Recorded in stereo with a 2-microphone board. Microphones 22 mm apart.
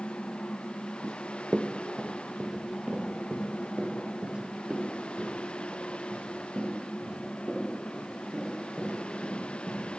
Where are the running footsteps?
30° right (ahead or behind), 1.1 m; by 9.9 s 85° right, 9.5 m.